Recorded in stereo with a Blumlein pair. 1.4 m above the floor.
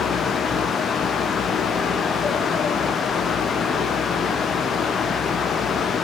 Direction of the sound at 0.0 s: 20° left.